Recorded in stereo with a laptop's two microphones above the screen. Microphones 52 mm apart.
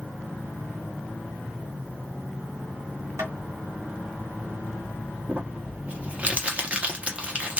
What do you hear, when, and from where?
3.2 s tapping: 65° right (ahead or behind), 1.5 m
5.3 s crumpling: 25° right (ahead or behind), 0.7 m